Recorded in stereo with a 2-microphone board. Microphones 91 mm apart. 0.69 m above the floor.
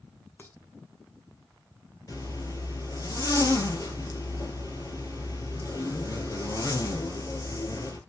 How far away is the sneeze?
I don't hear a sneeze.